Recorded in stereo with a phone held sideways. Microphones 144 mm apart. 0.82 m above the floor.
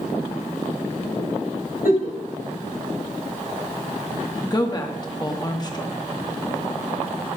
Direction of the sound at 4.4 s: 30° left (ahead or behind).